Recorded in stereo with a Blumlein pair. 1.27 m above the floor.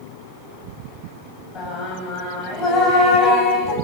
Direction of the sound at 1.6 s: 25° left.